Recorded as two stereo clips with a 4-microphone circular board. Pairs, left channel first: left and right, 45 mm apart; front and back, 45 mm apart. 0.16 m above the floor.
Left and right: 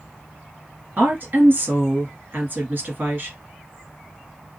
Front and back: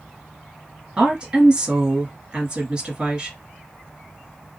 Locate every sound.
1.0 s a woman speaking: 125° right, 1.7 m